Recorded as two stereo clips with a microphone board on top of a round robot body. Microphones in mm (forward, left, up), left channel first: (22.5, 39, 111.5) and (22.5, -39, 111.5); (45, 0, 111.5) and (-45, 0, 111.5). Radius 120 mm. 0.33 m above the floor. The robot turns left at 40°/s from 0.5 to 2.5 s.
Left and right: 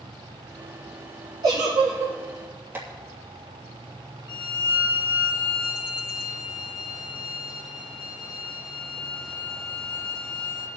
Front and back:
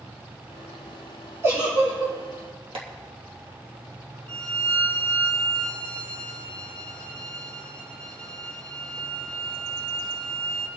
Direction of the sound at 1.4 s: 120° right.